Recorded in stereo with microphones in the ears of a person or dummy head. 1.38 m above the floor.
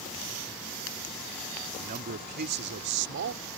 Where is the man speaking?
40° right (ahead or behind); by 3.5 s 55° right (ahead or behind).